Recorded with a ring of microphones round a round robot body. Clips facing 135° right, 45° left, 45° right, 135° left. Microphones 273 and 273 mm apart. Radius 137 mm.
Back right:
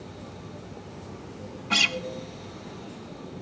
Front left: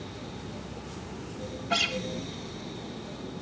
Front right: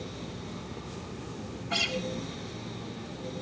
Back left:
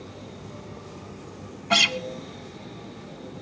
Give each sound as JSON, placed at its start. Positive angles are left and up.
{"t": 1.7, "sound": "a guitar", "azimuth_deg": 150, "distance_m": 1.0}